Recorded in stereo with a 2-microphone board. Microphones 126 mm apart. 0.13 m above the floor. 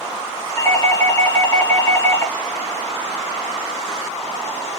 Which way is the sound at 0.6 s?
20° left (ahead or behind).